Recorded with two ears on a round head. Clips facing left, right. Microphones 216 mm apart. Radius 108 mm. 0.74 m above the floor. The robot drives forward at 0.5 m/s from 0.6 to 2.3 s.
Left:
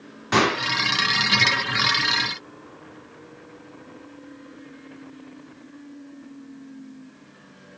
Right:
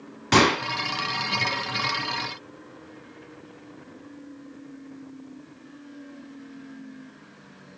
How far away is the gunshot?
About 2 m.